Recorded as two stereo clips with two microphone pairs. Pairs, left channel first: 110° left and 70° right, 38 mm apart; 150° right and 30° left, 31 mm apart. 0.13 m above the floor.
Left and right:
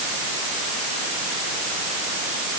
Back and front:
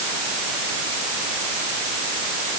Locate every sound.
Only background noise.